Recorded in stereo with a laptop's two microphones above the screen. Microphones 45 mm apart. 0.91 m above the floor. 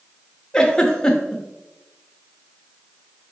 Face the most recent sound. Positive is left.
turn(degrees=15)  # may be behind; listen again after turning